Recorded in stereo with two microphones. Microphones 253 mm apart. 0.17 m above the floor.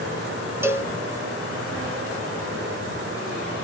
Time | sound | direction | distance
0.6 | a cowbell | 10° right (ahead or behind) | 1.0 m